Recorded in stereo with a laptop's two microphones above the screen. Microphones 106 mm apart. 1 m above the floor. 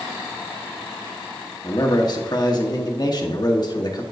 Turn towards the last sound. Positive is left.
turn(degrees=40)  # may be behind; listen again after turning